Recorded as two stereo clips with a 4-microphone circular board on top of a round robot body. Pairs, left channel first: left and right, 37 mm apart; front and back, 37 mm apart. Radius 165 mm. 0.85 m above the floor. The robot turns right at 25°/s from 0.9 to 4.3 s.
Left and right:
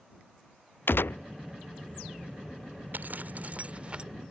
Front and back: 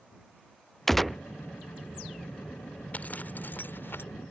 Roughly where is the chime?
No chime in this recording.